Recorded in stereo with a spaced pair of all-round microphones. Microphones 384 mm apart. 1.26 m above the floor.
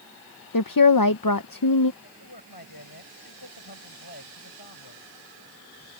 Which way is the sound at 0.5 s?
60° left (ahead or behind).